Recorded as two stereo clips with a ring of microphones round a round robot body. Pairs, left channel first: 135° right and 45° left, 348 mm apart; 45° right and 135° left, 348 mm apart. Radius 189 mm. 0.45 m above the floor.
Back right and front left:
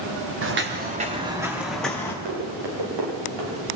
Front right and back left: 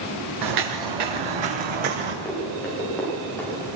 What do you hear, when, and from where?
0.4 s footsteps: 100° left, 3 m; by 2.1 s 145° left, 3.5 m
2.2 s running footsteps: 40° left, 10 m